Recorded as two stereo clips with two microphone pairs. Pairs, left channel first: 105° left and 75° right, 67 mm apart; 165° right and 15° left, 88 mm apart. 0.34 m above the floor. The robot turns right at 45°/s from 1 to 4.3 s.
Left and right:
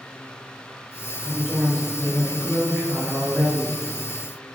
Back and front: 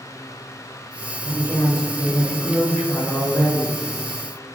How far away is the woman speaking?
About 1.1 m.